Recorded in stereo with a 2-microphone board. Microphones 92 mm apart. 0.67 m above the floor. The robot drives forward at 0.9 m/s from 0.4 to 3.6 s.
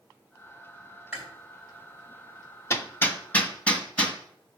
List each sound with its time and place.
1.1 s chewing: 15° right (ahead or behind), 4.5 m
2.7 s hammering: 30° left (ahead or behind), 0.7 m; by 4.2 s 15° left (ahead or behind), 1.4 m